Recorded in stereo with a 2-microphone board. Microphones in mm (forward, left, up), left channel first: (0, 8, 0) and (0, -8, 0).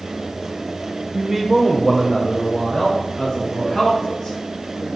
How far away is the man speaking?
About 0.9 m.